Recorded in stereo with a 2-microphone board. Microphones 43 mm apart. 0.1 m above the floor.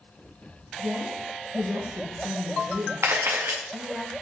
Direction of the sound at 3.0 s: 85° right.